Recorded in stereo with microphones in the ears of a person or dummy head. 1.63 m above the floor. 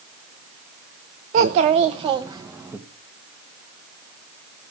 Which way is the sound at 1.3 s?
45° right (ahead or behind).